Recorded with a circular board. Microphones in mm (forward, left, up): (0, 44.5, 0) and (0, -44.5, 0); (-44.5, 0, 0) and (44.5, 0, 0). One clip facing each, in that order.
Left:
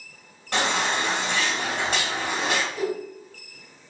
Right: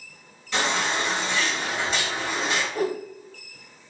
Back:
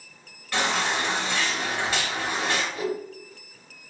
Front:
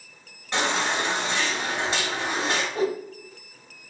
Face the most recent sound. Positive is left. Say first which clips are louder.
# right 1 dB, front 3 dB
turn(degrees=-50)